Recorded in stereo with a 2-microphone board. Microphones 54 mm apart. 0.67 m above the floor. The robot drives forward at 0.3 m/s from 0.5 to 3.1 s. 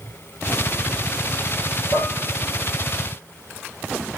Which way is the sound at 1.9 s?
75° left (ahead or behind).